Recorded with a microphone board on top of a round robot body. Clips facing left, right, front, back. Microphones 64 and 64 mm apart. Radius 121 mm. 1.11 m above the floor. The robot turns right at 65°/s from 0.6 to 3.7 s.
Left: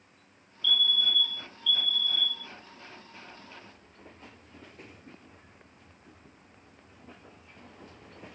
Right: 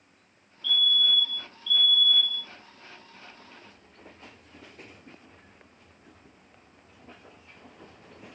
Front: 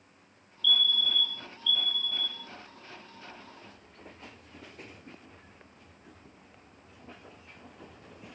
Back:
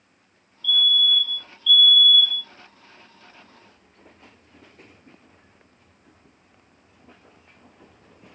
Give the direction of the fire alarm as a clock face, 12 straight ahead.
5 o'clock.